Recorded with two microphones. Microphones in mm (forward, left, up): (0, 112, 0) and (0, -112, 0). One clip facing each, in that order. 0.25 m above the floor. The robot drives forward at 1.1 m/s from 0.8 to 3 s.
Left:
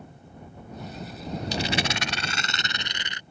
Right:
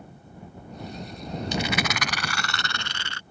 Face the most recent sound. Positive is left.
turn(degrees=20)  # may be behind; listen again after turning